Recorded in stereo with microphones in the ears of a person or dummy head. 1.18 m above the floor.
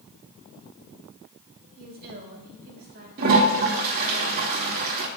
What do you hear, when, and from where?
1.8 s a woman speaking: 45° right (ahead or behind), 5 m
3.2 s a toilet flushing: 45° right (ahead or behind), 2.5 m